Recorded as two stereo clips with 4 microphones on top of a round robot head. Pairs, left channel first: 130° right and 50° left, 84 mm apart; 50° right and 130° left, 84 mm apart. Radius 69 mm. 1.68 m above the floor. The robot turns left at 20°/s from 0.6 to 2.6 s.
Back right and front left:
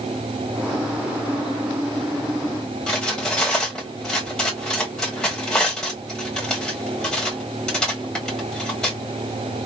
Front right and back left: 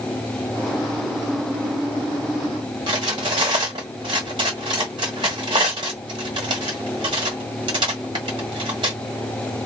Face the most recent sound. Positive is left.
turn(degrees=150)